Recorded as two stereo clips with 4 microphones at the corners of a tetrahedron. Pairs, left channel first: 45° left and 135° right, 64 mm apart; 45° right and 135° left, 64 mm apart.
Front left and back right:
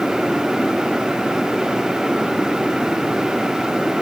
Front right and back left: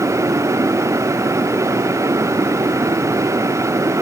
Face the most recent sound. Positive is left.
No sound to turn to.